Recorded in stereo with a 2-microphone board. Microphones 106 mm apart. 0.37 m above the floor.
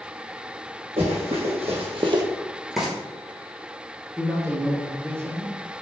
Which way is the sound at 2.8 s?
5° right (ahead or behind).